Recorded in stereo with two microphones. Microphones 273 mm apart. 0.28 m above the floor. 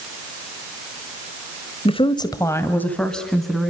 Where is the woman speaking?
20° left (ahead or behind), 1.5 m; by 3.7 s centre (ahead or behind), 3.5 m.